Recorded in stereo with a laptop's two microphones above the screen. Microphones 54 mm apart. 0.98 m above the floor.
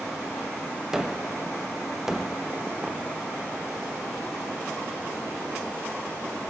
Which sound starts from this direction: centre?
A gunshot, at 0.9 s.